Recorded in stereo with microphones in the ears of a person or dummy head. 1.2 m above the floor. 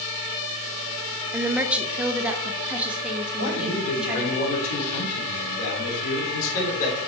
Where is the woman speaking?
10° right (ahead or behind), 0.7 m; by 4.4 s 5° right (ahead or behind), 2.5 m.